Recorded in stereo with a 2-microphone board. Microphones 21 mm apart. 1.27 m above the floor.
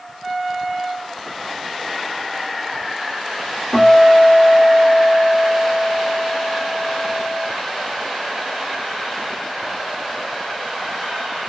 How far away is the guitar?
About 1.4 m.